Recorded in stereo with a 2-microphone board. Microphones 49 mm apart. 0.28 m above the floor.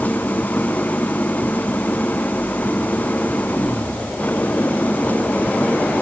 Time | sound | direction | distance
0.0 | an engine running | 35° left (ahead or behind) | ?